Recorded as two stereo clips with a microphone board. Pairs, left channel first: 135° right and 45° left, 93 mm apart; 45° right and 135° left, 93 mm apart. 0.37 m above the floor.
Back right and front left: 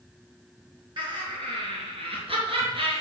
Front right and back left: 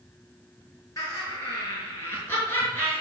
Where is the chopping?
No chopping in this recording.